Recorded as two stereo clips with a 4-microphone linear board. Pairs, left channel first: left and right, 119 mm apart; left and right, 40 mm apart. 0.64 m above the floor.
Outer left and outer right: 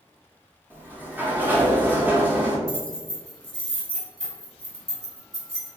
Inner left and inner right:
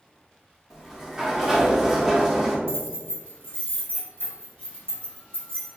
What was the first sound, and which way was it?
A sliding door, 15° right (ahead or behind).